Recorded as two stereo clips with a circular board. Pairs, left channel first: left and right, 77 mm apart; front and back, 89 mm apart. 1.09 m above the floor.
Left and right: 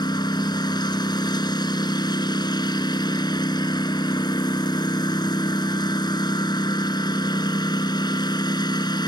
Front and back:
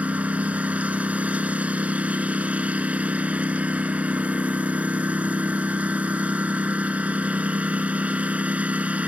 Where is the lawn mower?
105° left.